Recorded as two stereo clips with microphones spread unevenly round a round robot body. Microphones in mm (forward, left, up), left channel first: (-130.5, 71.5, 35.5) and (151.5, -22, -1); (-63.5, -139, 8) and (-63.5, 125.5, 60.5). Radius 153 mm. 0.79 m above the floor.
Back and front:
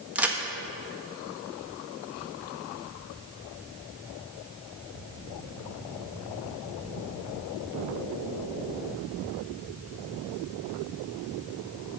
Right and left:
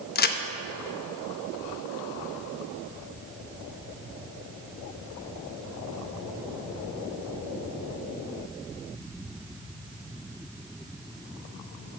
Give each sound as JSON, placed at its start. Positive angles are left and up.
{"t": 0.1, "sound": "a crack", "azimuth_deg": -95, "distance_m": 0.9}